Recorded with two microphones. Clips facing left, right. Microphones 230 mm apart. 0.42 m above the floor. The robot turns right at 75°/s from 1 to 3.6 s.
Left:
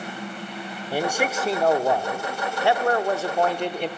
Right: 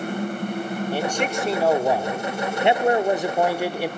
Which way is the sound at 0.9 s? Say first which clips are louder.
Left 2 dB; 10° left (ahead or behind).